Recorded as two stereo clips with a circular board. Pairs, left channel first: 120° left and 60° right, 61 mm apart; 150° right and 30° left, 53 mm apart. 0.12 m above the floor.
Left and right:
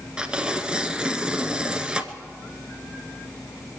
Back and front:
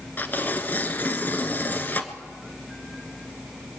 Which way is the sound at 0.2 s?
130° right.